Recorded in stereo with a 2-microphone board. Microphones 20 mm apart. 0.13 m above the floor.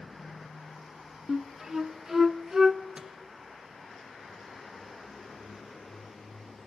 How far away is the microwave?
About 2.5 m.